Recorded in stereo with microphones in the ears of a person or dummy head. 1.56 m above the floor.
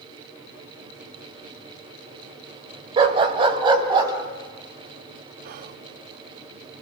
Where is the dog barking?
30° right (ahead or behind), 2 m; by 4.1 s 20° right (ahead or behind), 3.5 m.